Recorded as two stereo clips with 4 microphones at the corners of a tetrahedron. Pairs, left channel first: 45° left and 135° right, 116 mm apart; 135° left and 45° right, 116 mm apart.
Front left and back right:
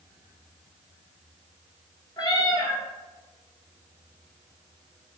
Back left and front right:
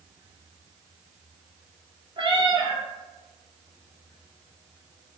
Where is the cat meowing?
5° right, 0.7 m.